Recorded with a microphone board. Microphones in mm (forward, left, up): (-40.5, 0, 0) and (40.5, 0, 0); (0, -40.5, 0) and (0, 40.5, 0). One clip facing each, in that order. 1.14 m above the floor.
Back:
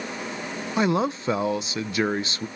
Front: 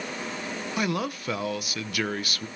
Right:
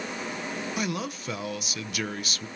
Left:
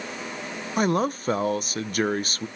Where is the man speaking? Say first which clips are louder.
Back 7 dB, left 12 dB; 125° left, 0.8 m.